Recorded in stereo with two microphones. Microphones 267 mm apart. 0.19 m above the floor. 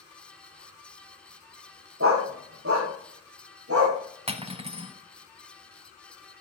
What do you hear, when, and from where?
2.0 s a dog barking: 55° right (ahead or behind), 3 m
4.3 s cutlery clinking: 25° right (ahead or behind), 0.6 m